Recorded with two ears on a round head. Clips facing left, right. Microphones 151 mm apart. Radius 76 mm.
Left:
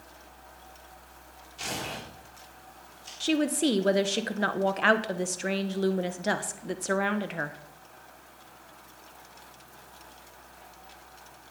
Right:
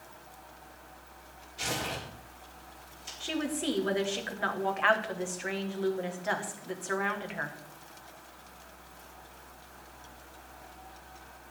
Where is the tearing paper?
5° right (ahead or behind), 4.5 m.